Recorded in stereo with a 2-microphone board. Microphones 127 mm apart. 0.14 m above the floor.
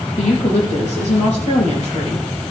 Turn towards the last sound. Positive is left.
turn(degrees=65)  # may be behind; listen again after turning